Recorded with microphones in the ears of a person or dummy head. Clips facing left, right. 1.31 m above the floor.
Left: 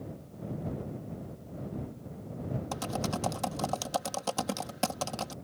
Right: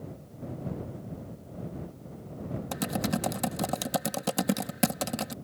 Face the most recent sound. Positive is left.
turn(degrees=-30)  # may be behind; listen again after turning